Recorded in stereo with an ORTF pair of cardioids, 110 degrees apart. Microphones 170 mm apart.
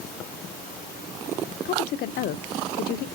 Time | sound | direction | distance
1.6 | a woman speaking | 65° left | 0.7 m